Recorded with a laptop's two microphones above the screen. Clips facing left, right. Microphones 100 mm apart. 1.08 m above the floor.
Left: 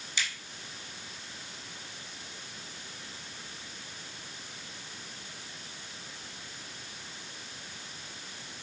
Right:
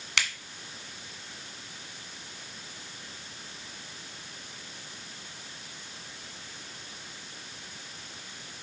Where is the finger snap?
75° right (ahead or behind), 1.7 m.